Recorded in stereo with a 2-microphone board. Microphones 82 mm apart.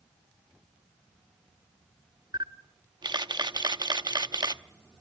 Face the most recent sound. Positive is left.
turn(degrees=-60)  # may be behind; listen again after turning